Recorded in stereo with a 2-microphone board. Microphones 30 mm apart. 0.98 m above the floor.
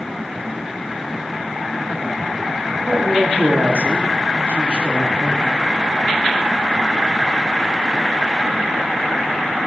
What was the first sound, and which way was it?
A man speaking, 70° right (ahead or behind).